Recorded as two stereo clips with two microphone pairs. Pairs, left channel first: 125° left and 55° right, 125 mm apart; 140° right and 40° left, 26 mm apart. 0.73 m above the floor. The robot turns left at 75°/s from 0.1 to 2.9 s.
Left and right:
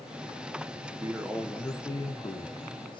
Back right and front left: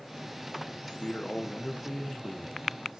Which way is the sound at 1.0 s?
120° right.